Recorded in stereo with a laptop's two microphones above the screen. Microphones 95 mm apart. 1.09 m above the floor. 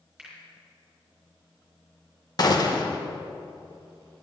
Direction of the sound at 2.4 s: 45° left (ahead or behind).